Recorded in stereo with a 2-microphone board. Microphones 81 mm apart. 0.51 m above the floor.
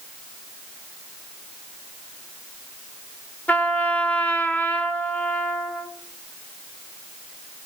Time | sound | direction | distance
3.5 | a trumpet | 20° left (ahead or behind) | 1.7 m